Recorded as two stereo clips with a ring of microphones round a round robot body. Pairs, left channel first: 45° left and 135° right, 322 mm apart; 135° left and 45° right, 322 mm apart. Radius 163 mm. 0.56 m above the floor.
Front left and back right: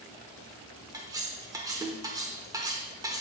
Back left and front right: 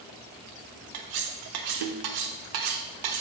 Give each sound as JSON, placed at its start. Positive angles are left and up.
{"t": 0.9, "sound": "cutlery clinking", "azimuth_deg": -55, "distance_m": 0.8}